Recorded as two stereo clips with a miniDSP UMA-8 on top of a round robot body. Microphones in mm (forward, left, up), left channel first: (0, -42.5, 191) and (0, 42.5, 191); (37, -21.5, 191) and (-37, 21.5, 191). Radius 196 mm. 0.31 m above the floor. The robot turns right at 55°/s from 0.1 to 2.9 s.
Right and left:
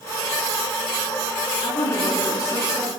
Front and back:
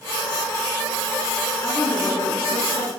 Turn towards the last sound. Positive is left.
turn(degrees=-20)